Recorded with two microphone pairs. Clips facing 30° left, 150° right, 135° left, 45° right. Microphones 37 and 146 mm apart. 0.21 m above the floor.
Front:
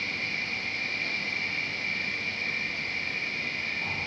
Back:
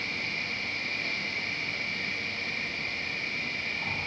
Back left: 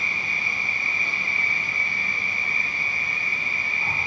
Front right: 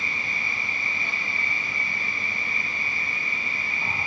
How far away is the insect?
About 4.5 m.